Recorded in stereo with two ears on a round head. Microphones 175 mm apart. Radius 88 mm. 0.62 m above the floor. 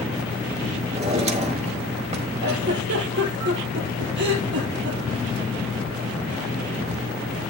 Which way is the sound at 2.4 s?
65° right (ahead or behind).